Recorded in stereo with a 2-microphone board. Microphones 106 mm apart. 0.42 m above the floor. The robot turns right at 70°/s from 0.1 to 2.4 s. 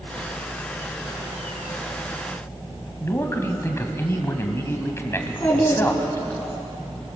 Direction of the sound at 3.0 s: 25° left (ahead or behind).